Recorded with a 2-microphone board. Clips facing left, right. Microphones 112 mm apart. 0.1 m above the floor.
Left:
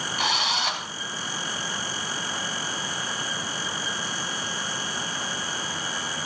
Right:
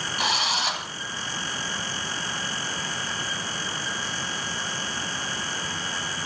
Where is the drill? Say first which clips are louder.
Even; 5° right (ahead or behind), 2.5 m.